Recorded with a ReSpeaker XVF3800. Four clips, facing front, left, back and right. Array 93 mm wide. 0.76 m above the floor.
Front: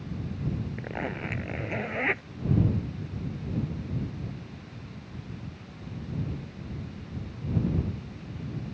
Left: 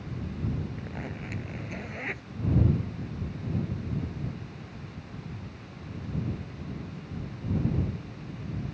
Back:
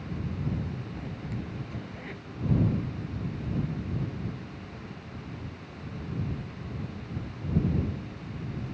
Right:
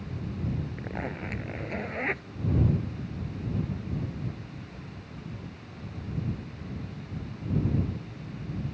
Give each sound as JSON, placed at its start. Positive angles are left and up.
{"t": 0.8, "sound": "a zipper", "azimuth_deg": -30}